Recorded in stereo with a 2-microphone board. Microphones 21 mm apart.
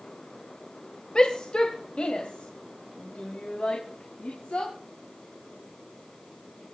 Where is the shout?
45° left (ahead or behind), 2.5 m; by 4.7 s 80° left, 4.5 m.